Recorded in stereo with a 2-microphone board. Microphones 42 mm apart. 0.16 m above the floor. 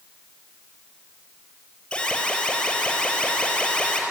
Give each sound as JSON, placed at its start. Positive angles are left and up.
{"t": 1.9, "sound": "an alarm", "side_deg": 15, "distance_m": 5.0}